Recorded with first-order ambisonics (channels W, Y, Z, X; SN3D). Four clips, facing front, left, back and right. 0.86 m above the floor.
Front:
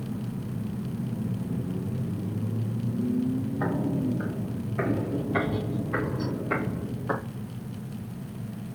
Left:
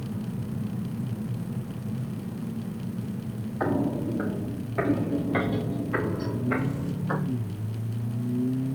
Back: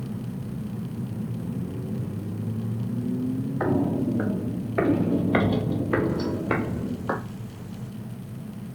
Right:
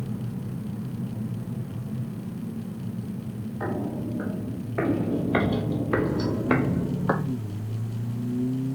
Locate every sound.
3.6 s footsteps: 155° left, 1.4 m; by 7.2 s 110° right, 1.6 m